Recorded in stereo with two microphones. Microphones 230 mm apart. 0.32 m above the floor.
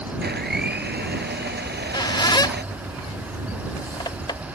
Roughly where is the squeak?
Centre.